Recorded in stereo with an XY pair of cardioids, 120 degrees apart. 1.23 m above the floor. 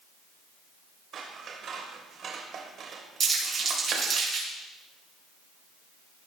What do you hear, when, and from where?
1.1 s scissors: 55° right, 2.5 m
3.2 s crumpling: 35° right, 7 m